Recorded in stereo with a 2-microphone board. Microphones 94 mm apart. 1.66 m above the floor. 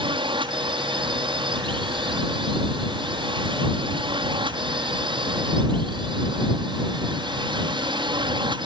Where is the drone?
70° right (ahead or behind); by 8.7 s 65° right (ahead or behind).